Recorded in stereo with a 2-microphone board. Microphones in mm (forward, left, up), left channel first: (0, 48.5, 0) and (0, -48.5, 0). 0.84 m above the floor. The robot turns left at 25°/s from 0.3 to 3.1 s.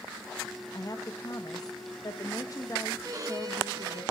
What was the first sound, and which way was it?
A woman speaking, 110° left.